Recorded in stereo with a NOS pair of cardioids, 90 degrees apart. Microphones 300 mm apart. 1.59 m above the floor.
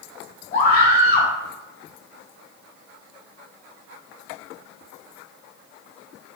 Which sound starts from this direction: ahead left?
A scream, at 0.5 s.